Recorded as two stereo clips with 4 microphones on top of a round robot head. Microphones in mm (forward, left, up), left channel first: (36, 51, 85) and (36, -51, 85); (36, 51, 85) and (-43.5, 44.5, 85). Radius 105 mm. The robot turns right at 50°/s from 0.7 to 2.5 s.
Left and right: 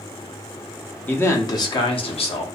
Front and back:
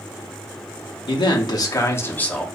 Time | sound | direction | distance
1.1 | a man speaking | 20° left | 0.8 m